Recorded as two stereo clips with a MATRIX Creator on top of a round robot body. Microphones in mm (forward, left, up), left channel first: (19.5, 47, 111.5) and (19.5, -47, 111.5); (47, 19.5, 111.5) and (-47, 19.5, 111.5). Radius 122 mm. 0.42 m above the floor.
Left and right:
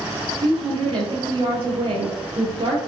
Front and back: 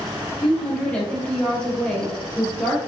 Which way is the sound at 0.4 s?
75° right.